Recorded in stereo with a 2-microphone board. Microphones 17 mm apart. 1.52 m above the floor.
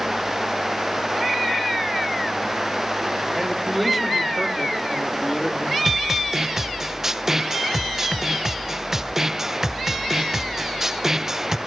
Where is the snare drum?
15° right (ahead or behind), 0.8 m.